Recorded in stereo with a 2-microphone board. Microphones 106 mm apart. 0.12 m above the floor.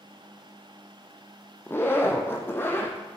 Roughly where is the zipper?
Left.